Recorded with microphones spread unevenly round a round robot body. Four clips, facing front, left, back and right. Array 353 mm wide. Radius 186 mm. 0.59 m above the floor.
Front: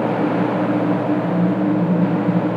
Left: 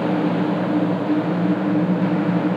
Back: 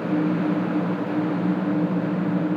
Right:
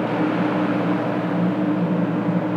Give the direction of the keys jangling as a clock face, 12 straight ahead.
I don't hear keys jangling.